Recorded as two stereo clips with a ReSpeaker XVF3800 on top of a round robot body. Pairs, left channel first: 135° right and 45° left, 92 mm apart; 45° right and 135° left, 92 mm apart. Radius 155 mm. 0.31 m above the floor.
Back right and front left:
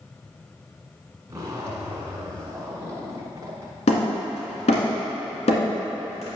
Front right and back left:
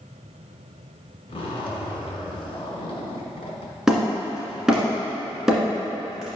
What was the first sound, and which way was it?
A zipper, 15° right.